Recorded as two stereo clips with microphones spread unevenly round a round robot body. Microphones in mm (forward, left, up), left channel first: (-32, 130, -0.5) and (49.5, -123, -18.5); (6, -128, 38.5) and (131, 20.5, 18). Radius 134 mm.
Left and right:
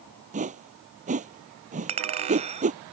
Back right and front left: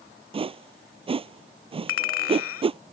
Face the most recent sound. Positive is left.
turn(degrees=-140)